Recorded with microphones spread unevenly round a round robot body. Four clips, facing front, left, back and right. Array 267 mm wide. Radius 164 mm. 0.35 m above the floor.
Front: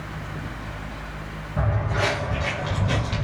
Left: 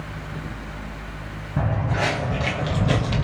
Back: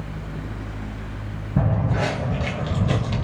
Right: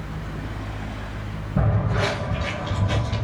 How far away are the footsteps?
About 1.0 m.